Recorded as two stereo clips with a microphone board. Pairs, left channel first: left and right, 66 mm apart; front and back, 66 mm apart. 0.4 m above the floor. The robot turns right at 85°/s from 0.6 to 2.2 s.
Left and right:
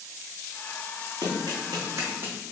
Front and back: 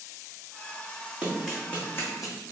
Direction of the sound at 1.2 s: 110° right.